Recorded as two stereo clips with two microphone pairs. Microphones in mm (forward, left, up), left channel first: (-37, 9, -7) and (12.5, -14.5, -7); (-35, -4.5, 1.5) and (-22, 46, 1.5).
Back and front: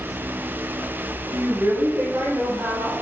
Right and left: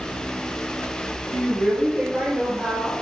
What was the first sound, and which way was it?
A woman speaking, 20° left.